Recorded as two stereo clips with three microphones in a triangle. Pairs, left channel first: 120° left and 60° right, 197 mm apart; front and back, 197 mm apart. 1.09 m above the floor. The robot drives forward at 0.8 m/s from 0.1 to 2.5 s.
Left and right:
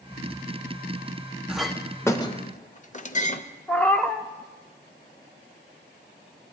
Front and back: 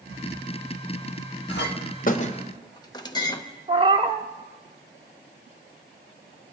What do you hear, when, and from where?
1.5 s a clink: 25° left, 1.2 m; by 3.4 s 65° left, 0.6 m
3.7 s a cat meowing: 160° right, 0.6 m